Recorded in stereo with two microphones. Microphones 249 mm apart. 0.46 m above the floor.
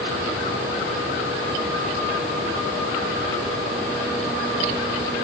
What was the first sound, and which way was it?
Only background noise.